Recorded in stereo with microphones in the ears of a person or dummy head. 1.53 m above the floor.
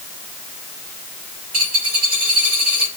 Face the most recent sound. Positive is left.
turn(degrees=-40)  # may be behind; listen again after turning